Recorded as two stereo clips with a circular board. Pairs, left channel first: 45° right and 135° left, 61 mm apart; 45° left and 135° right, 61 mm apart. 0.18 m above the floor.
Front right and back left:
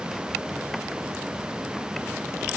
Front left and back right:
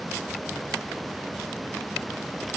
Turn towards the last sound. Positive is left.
No sound to turn to.